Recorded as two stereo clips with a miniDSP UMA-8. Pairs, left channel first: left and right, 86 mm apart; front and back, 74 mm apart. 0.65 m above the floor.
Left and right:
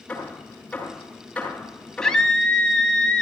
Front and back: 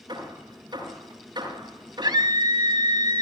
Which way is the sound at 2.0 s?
175° left.